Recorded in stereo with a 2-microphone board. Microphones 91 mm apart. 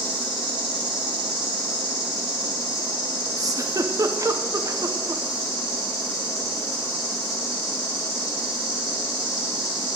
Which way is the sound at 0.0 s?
10° right (ahead or behind).